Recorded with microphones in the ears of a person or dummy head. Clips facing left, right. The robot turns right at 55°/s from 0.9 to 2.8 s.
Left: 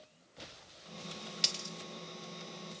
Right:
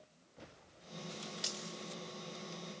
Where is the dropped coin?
40° left (ahead or behind), 2 m; by 1.7 s 25° left (ahead or behind), 2 m.